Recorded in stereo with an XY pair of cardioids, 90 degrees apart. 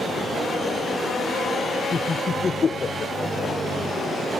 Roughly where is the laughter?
Ahead left.